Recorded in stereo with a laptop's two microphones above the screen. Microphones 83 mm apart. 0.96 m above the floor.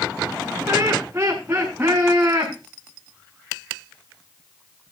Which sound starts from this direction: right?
Laughter, at 0.7 s.